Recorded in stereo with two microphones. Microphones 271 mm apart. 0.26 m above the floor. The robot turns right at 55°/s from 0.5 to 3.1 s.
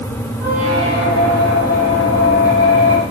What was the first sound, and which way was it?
A squeak, 80° left.